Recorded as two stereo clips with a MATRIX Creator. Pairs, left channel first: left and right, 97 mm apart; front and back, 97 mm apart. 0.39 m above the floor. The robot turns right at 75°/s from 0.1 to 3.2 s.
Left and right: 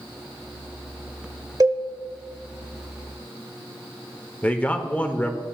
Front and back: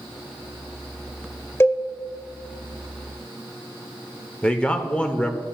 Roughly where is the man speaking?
Ahead left.